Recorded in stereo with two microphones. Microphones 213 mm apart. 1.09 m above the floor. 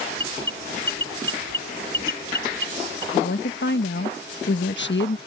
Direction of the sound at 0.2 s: 20° right (ahead or behind).